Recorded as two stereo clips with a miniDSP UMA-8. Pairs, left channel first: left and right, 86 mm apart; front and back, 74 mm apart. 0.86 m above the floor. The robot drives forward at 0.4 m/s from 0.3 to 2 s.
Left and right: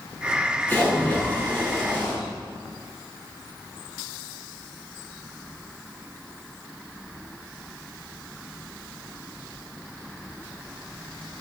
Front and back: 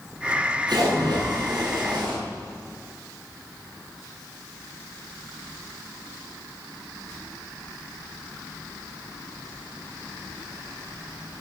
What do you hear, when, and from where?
0.7 s a splash: 160° left, 8 m